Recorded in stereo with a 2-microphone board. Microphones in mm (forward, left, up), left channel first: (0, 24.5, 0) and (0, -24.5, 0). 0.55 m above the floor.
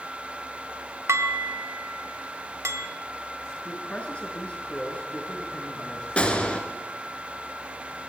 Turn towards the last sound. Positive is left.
turn(degrees=25)  # may be behind; listen again after turning